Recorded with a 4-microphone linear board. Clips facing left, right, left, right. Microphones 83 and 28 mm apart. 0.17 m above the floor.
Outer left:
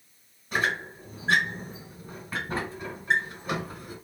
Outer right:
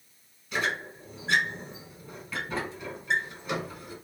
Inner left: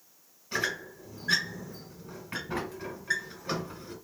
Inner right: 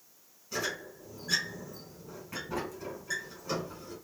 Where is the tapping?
No tapping in this recording.